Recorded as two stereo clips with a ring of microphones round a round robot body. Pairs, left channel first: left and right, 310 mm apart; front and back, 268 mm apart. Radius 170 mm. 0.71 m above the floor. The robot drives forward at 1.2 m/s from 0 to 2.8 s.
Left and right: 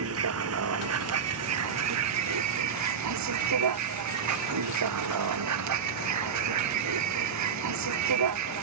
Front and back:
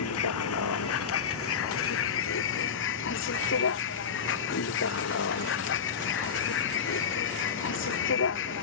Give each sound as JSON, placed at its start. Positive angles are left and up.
{"t": 0.0, "sound": "a vehicle", "azimuth_deg": -45}